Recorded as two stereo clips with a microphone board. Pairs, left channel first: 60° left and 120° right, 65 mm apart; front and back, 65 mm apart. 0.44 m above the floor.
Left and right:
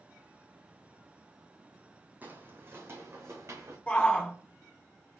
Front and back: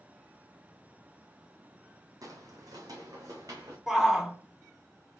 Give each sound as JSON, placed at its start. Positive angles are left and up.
{"t": 2.2, "sound": "footsteps", "azimuth_deg": 180, "distance_m": 1.0}
{"t": 3.9, "sound": "a shout", "azimuth_deg": 105, "distance_m": 0.8}